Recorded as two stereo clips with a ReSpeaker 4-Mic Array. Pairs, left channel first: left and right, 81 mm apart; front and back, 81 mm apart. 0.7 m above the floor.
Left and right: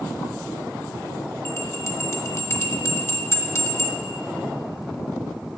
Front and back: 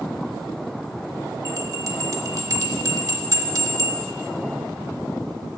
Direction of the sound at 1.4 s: 145° left.